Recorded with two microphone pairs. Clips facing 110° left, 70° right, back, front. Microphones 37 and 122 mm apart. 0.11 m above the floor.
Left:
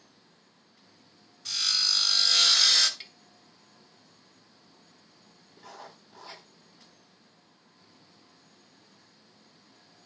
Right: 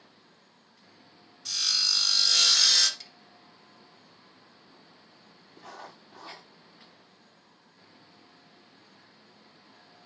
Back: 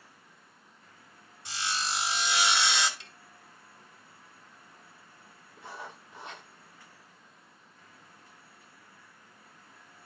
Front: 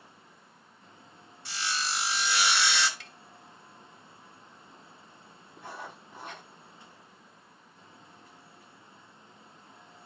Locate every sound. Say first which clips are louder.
1.4 s sawing: even, even; 170° right, 1.7 m
3.0 s tapping: left 3 dB, front 2 dB; 135° left, 1.1 m
5.6 s writing: right 2 dB, front 1 dB; 40° right, 7 m